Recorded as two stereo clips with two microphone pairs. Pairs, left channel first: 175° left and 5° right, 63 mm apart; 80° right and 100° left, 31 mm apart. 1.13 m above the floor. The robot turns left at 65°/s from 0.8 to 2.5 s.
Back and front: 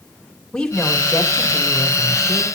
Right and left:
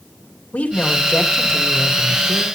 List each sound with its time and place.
0.5 s a woman speaking: 110° right, 3 m; by 2.5 s 145° left, 3 m